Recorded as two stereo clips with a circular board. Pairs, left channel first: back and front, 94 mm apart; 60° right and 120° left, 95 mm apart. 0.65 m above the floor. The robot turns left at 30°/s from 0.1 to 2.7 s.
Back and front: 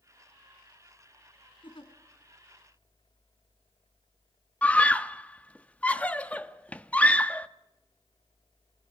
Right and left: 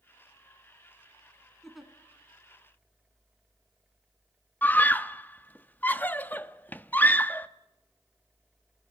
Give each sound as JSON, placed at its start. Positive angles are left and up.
{"t": 1.6, "sound": "a giggle", "azimuth_deg": -150, "distance_m": 2.5}
{"t": 4.6, "sound": "a scream", "azimuth_deg": -115, "distance_m": 0.9}